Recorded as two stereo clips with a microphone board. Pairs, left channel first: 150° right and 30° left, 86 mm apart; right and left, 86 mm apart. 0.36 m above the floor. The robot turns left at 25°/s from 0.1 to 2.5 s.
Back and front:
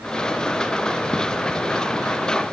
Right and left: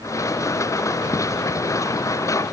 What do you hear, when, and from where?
Only background noise.